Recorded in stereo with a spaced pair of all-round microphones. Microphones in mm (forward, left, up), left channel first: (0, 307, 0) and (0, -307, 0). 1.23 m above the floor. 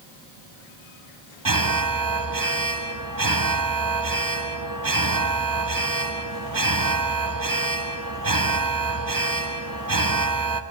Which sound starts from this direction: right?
An alarm, at 1.4 s.